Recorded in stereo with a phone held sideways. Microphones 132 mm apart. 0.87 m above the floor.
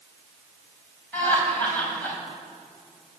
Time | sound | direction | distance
1.1 | laughter | 10° left (ahead or behind) | 4.5 m